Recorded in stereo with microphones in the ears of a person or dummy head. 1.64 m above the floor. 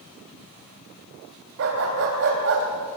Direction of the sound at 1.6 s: 65° right (ahead or behind).